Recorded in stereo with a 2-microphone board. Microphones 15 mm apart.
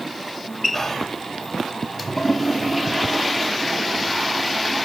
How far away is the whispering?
About 0.9 m.